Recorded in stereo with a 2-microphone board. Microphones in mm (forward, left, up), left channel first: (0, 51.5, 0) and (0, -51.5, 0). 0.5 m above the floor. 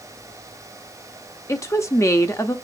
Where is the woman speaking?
30° left (ahead or behind), 0.7 m.